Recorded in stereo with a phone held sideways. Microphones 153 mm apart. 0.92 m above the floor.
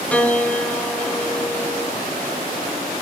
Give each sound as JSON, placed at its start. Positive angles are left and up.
{"t": 0.1, "sound": "a piano", "side_deg": 10, "distance_m": 1.9}